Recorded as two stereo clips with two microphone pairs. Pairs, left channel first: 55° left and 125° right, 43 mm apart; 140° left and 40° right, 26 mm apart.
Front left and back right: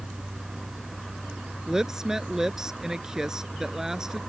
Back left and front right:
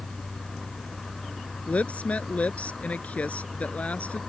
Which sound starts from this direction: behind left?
A woman speaking, at 1.7 s.